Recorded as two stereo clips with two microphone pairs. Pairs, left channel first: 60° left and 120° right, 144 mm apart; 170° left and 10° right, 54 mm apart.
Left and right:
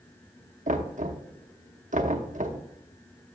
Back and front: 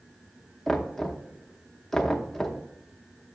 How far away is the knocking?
About 0.8 m.